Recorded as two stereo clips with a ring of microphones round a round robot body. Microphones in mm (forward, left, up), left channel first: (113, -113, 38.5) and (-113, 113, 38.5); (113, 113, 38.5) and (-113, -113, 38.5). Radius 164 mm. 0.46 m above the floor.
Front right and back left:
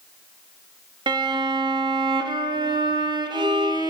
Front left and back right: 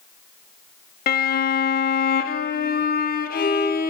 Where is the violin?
70° left, 0.6 m.